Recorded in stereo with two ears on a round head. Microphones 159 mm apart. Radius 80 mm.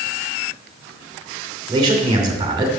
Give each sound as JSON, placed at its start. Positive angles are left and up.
{"t": 1.7, "sound": "a man speaking", "side_deg": -25, "distance_m": 2.5}